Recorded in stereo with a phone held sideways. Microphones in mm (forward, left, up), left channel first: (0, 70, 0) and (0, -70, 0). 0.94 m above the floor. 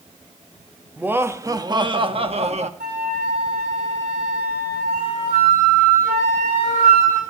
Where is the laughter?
10° right (ahead or behind), 1.1 m; by 2.7 s 55° right (ahead or behind), 1.3 m.